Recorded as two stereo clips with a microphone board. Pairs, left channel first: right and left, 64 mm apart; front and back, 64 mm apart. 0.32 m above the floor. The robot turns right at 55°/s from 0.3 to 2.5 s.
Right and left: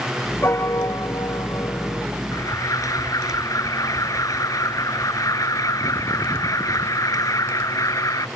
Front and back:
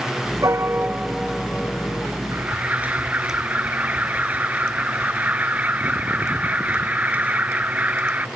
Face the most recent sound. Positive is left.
turn(degrees=-115)